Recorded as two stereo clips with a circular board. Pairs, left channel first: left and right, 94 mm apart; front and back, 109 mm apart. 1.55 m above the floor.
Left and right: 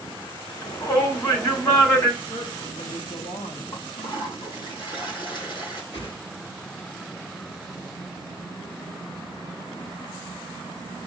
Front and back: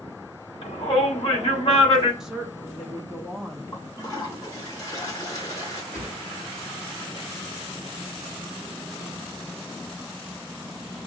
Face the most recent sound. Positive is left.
turn(degrees=65)